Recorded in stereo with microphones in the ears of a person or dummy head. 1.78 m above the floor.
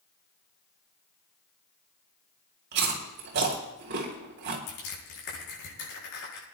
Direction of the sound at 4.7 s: 70° left (ahead or behind).